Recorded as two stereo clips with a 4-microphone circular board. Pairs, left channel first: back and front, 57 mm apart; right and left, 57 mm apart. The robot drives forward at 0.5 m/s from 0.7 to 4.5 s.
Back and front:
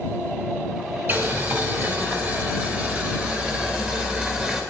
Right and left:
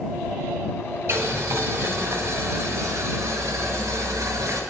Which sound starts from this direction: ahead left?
Boiling, at 1.1 s.